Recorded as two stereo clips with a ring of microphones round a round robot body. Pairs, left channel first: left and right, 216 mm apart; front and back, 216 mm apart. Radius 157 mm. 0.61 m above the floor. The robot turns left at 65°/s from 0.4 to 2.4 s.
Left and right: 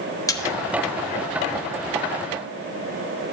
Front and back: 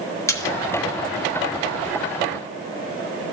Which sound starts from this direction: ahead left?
A splash, at 0.3 s.